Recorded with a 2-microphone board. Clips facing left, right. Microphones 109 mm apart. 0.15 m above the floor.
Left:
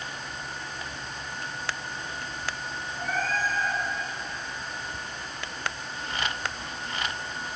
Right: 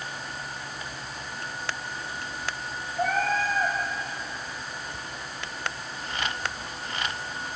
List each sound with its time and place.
3.0 s a cat meowing: 70° right (ahead or behind), 4.5 m